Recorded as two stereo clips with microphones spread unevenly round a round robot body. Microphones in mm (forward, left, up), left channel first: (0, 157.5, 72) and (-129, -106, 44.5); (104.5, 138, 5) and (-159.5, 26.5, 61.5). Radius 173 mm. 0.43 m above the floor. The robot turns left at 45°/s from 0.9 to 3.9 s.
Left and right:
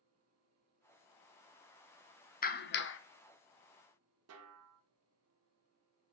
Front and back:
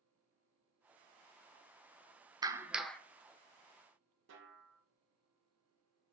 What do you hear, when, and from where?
2.4 s a clap: 120° left, 0.6 m; by 3.0 s 90° left, 0.6 m
4.3 s a snare drum: 100° right, 0.9 m